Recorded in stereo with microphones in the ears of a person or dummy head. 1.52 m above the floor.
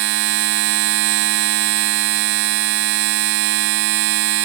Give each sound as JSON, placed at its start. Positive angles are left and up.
{"t": 0.0, "sound": "a machine running", "side_deg": -65}